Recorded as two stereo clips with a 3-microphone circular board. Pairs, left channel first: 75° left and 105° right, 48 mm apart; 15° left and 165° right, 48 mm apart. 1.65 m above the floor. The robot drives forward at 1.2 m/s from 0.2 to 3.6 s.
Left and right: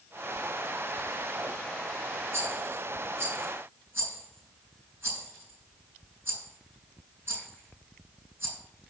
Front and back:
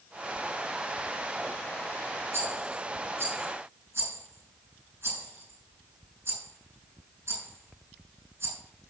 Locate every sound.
2.3 s a rattle: 130° right, 5.5 m; by 8.6 s 140° right, 6.5 m